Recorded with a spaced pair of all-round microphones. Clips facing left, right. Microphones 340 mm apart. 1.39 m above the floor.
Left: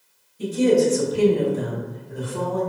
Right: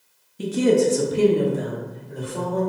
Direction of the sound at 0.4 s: 80° right.